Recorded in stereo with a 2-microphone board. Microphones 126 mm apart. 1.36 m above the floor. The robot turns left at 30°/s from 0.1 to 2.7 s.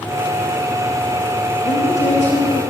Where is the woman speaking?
85° left, 3 m; by 2.6 s 60° left (ahead or behind), 3 m.